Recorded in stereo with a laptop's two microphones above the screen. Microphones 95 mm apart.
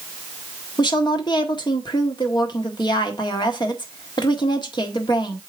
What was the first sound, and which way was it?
A woman speaking, 50° left (ahead or behind).